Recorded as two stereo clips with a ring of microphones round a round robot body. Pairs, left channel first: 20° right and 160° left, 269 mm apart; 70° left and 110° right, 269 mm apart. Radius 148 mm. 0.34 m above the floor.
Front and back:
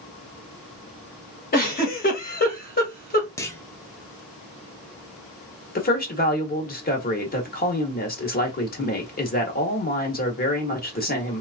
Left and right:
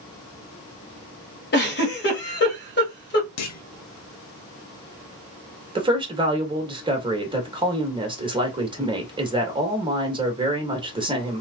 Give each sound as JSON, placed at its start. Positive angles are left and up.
{"t": 1.5, "sound": "a giggle", "azimuth_deg": 25, "distance_m": 1.8}
{"t": 3.4, "sound": "a clunk", "azimuth_deg": 55, "distance_m": 0.6}
{"t": 5.8, "sound": "a woman speaking", "azimuth_deg": -50, "distance_m": 1.3}